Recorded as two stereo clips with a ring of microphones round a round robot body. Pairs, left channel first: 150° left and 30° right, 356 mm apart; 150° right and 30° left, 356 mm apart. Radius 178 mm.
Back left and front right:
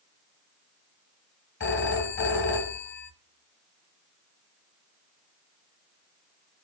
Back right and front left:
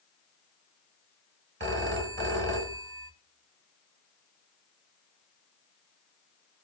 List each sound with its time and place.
1.6 s a phone ringing: 90° left, 1.3 m